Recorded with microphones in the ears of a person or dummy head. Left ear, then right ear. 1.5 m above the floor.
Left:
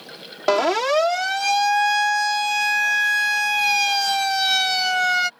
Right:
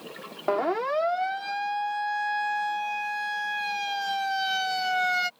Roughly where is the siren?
Left.